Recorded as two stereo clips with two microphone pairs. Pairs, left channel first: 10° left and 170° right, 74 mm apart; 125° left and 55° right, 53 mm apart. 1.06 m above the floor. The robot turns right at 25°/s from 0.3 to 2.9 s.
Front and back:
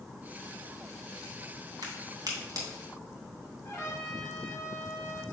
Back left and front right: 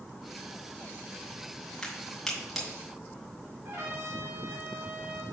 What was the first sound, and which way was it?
A crack, 160° right.